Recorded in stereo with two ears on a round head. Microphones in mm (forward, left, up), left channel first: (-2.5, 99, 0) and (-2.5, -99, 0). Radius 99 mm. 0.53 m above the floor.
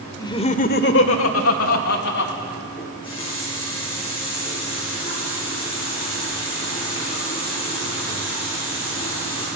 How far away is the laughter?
About 1.4 m.